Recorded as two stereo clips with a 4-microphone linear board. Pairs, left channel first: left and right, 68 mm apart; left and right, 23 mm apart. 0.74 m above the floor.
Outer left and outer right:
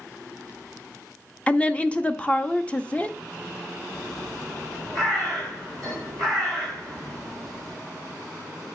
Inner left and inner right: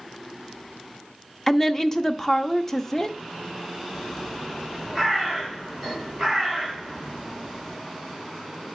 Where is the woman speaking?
20° left (ahead or behind), 0.7 m.